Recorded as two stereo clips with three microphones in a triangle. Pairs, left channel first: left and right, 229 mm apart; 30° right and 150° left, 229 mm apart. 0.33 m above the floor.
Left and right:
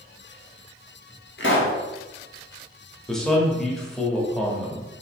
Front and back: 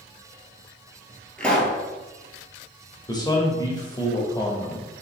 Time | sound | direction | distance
1.4 | a pop | 55° left | 0.9 m
3.1 | a man speaking | 5° left | 0.9 m